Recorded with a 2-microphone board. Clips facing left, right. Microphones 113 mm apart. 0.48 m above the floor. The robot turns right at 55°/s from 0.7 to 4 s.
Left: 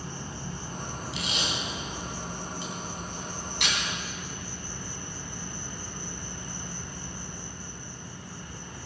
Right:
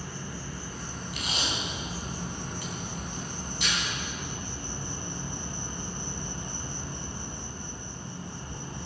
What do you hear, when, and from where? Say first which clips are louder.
0.0 s an insect: left 1 dB; 150° left, 2 m; by 8.9 s 25° right, 2 m
1.1 s tape being pulled: even; 55° right (ahead or behind), 3.5 m; by 3.8 s 75° left (ahead or behind), 3.5 m